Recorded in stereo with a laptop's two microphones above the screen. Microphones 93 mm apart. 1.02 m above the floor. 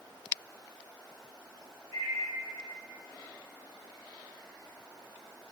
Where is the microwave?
50° right (ahead or behind), 1.6 m.